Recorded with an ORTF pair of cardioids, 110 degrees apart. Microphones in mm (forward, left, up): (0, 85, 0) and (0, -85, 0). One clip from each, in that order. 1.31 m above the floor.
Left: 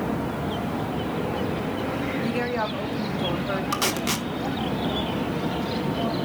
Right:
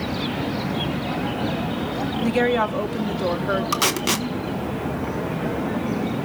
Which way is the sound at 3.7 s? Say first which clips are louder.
Right 3 dB; 20° right.